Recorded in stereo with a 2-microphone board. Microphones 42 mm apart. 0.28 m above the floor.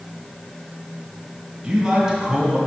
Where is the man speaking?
15° right (ahead or behind), 2.0 m.